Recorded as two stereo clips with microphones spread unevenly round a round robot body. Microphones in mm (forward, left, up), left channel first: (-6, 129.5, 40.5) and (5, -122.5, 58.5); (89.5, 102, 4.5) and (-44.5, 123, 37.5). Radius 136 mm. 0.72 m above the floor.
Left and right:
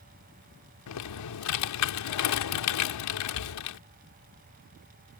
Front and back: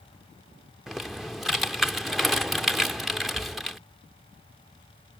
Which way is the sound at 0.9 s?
80° left.